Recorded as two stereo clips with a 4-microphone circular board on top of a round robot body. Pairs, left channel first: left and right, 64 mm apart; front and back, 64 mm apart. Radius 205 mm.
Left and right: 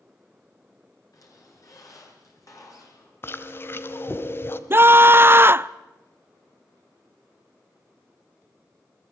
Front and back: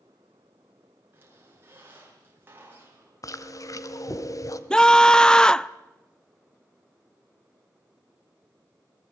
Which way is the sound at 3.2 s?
35° left.